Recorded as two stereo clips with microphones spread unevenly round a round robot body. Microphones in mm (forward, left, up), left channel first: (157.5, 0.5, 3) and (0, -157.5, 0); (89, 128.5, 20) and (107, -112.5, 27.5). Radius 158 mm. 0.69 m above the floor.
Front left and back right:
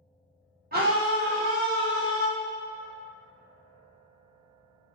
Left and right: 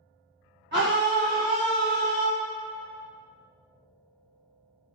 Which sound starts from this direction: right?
A scream, at 0.7 s.